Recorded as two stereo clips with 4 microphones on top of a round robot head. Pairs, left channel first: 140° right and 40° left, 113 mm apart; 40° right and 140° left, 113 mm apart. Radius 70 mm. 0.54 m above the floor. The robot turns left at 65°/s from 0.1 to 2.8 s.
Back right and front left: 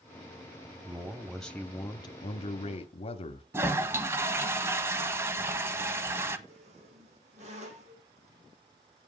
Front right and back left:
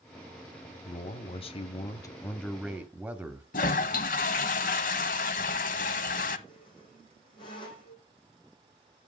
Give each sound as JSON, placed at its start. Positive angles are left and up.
{"t": 0.8, "sound": "a man speaking", "azimuth_deg": -15, "distance_m": 1.0}
{"t": 3.5, "sound": "a toilet flushing", "azimuth_deg": -30, "distance_m": 0.8}
{"t": 6.5, "sound": "a squeak", "azimuth_deg": 10, "distance_m": 4.0}